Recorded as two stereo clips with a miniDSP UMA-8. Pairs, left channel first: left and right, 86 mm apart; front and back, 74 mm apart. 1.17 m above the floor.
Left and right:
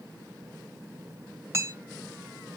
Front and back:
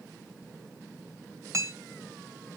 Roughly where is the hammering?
Behind right.